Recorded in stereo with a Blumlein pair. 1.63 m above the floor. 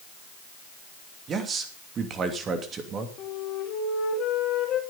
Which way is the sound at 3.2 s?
35° left.